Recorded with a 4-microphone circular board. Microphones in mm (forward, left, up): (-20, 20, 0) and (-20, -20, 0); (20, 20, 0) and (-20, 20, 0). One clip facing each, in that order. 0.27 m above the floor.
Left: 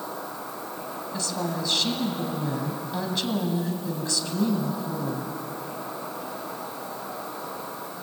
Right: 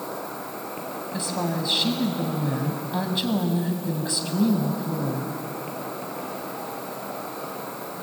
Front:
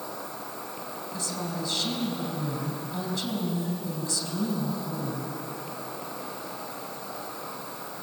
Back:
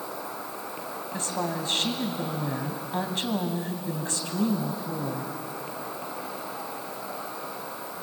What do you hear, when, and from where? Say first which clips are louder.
0.0 s an insect: right 2 dB, back 2 dB; 105° right, 4 m
1.1 s a woman speaking: right 2 dB, back 4 dB; 160° right, 2 m